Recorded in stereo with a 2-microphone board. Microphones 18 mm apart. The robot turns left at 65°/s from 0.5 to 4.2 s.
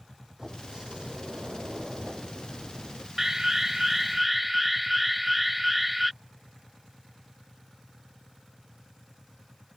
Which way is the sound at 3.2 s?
20° right (ahead or behind).